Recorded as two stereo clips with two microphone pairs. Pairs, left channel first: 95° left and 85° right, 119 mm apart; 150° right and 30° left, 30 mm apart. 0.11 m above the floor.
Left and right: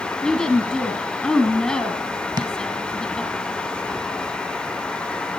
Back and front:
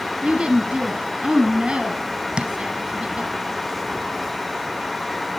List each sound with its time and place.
0.2 s a woman speaking: 10° left, 1.5 m
2.4 s tapping: 35° right, 1.3 m